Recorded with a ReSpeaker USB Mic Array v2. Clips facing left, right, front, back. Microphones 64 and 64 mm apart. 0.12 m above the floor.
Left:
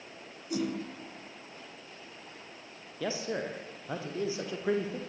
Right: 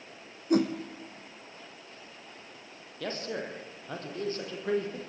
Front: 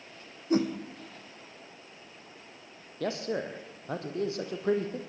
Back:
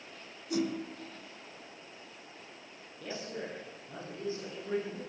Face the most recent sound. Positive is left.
turn(degrees=10)